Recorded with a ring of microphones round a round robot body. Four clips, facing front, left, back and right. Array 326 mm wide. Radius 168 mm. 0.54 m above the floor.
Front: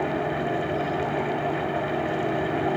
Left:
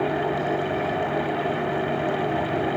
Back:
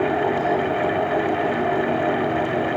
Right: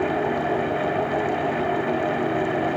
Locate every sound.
Only background noise.